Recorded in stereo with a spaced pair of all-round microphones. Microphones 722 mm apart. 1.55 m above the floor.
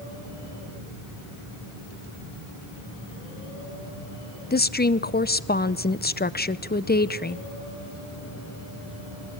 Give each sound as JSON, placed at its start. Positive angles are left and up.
{"t": 4.5, "sound": "a woman speaking", "side_deg": 15, "distance_m": 0.5}